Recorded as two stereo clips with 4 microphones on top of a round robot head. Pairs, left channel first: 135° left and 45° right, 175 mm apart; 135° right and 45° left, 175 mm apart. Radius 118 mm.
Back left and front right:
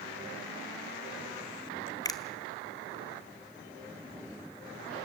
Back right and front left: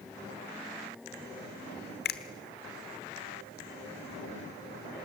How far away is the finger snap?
About 1.3 m.